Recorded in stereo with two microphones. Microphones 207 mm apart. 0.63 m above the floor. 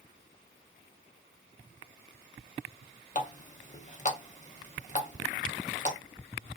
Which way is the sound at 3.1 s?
35° left (ahead or behind).